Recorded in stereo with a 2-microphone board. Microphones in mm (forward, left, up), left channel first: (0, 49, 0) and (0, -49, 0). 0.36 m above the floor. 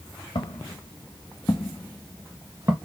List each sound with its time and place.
0.3 s footsteps: 65° left (ahead or behind), 2 m; by 2.8 s 40° right (ahead or behind), 1.2 m